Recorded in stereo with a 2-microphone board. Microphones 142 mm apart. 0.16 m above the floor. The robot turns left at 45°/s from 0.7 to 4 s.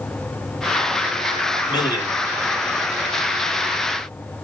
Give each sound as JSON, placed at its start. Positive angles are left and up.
{"t": 1.7, "sound": "a man speaking", "side_deg": 35, "distance_m": 2.0}